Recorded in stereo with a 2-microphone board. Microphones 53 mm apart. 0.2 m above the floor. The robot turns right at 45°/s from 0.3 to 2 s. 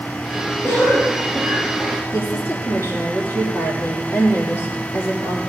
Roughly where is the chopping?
I don't hear chopping.